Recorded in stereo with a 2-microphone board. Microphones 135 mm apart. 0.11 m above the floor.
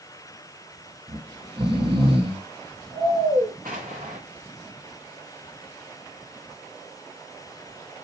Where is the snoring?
40° right (ahead or behind), 2.5 m.